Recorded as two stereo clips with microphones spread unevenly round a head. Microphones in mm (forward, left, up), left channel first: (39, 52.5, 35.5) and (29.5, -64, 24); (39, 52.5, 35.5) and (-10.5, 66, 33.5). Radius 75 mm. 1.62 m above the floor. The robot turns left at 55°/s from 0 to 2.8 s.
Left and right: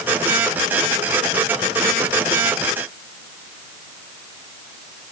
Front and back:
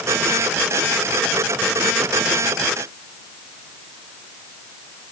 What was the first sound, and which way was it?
Only background noise.